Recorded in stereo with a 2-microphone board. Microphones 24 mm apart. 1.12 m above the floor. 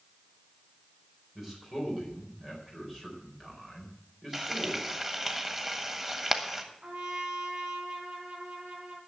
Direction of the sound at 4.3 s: 15° right (ahead or behind).